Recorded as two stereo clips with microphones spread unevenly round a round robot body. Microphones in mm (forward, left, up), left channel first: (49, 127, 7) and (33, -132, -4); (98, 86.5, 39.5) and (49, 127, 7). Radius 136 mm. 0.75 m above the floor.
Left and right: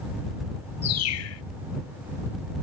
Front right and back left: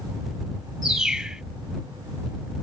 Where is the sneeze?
I don't hear a sneeze.